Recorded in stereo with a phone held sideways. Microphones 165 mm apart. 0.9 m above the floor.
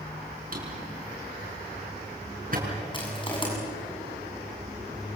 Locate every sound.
0.5 s a drawer: 50° right (ahead or behind), 5.5 m
2.9 s crushing: 30° left (ahead or behind), 7 m